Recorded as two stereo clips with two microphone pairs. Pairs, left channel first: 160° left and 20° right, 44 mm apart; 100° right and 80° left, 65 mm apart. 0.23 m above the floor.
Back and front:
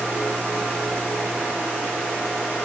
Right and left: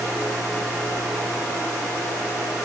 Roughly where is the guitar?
No guitar in this recording.